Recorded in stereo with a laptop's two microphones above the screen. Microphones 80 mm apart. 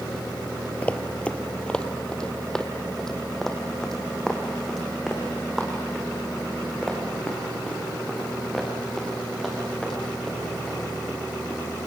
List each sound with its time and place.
0.8 s running footsteps: 20° left (ahead or behind), 1.3 m; by 11.6 s centre (ahead or behind), 8.5 m